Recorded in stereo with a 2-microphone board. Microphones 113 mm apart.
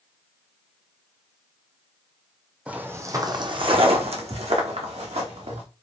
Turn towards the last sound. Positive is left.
turn(degrees=-75)  # may be behind; listen again after turning